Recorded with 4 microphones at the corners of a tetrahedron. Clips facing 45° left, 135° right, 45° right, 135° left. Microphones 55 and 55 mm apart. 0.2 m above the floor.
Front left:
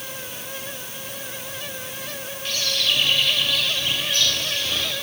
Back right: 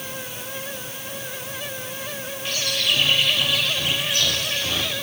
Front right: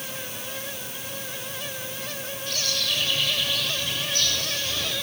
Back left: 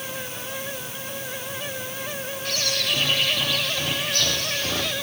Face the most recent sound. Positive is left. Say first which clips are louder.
# even, back left 3 dB
turn(degrees=150)